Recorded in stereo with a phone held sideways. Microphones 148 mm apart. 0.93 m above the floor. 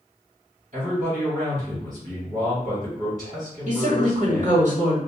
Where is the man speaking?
55° right (ahead or behind), 1.5 m.